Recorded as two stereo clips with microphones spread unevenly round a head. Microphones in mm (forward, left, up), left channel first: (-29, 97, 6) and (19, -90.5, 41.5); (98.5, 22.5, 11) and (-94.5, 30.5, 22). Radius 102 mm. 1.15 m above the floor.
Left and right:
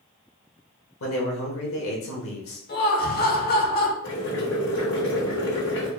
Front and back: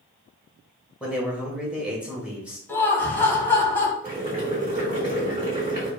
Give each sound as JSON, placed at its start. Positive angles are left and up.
{"t": 1.0, "sound": "a man speaking", "azimuth_deg": 95, "distance_m": 1.3}
{"t": 2.7, "sound": "laughter", "azimuth_deg": 75, "distance_m": 1.1}
{"t": 4.0, "sound": "boiling", "azimuth_deg": 130, "distance_m": 2.0}